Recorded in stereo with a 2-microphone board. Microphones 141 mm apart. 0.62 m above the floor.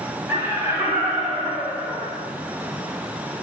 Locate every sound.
0.3 s laughter: 15° right (ahead or behind), 1.2 m; by 2.2 s 5° right (ahead or behind), 1.9 m